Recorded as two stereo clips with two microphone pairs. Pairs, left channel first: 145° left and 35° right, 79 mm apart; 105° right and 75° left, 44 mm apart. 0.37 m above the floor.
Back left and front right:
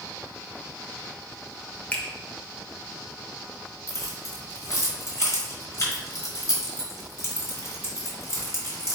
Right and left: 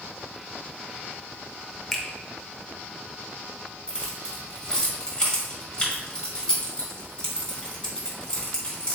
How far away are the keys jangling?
About 1.5 m.